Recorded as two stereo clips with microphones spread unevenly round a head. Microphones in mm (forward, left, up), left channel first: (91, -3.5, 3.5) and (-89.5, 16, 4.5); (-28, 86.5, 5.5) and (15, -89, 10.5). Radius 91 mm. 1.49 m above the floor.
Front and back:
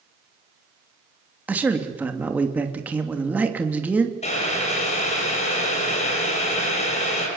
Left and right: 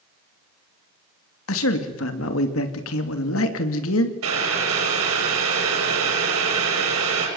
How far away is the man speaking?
About 2.5 m.